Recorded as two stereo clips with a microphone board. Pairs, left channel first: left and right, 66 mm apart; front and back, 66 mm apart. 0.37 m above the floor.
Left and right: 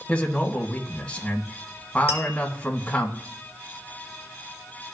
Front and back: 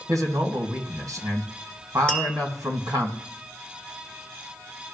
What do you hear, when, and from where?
0.1 s a man speaking: 165° left, 2.5 m
2.1 s tapping: 60° right, 2 m